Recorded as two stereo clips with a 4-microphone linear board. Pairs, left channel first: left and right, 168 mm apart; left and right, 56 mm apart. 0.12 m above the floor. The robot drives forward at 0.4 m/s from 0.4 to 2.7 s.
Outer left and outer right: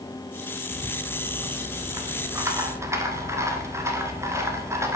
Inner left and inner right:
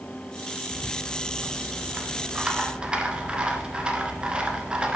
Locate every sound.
0.7 s a rattle: 20° right (ahead or behind), 1.3 m; by 5.0 s 15° right (ahead or behind), 1.5 m